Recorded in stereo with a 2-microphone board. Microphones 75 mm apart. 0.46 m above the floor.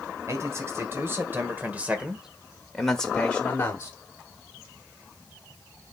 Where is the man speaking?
45° right (ahead or behind), 2 m; by 3.9 s 30° left (ahead or behind), 1.5 m.